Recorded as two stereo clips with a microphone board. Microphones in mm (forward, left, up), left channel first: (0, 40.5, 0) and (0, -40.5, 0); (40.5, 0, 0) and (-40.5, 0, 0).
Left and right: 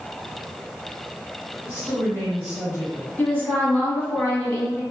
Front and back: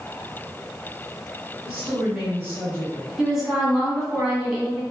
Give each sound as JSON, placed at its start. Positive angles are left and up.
{"t": 1.6, "sound": "a woman speaking", "azimuth_deg": 125, "distance_m": 1.7}
{"t": 3.2, "sound": "a woman speaking", "azimuth_deg": 105, "distance_m": 1.3}